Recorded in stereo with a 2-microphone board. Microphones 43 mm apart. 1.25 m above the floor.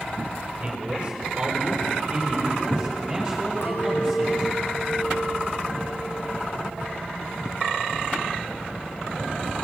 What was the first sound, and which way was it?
A man speaking, 25° right (ahead or behind).